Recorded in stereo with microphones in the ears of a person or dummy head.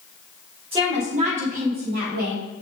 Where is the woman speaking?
20° right (ahead or behind), 2 m; by 2.4 s 55° right (ahead or behind), 2.5 m.